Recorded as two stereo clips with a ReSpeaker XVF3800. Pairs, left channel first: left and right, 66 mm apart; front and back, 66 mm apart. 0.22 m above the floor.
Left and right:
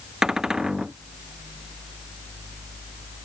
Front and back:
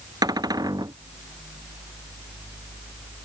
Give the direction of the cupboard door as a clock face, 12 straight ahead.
6 o'clock.